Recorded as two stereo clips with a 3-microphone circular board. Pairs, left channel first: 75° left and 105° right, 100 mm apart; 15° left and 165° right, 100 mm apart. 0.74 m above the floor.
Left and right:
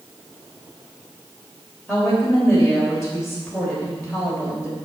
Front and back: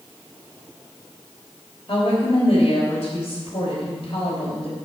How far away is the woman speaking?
About 3.5 m.